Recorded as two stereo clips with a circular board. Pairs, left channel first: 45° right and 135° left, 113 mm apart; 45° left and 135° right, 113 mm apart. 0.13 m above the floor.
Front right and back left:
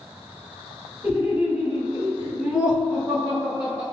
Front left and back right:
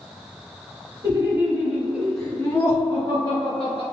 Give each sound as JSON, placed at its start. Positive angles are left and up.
{"t": 1.0, "sound": "laughter", "azimuth_deg": -145, "distance_m": 1.7}